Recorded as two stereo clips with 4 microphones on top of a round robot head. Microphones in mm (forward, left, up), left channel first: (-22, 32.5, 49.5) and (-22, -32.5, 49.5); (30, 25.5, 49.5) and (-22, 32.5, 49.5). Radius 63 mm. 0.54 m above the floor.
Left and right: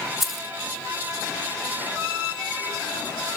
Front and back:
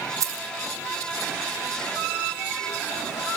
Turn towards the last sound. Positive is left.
turn(degrees=-175)